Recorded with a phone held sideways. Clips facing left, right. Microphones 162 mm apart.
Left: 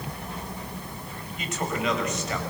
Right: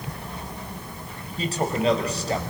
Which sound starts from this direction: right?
A man speaking, at 1.4 s.